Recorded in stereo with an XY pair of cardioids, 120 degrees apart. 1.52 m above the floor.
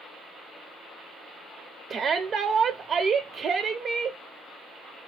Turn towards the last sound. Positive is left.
turn(degrees=-40)